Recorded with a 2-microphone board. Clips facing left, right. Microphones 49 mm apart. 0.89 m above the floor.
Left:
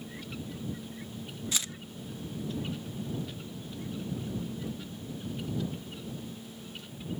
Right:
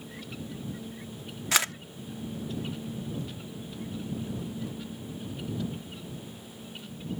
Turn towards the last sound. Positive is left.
turn(degrees=-80)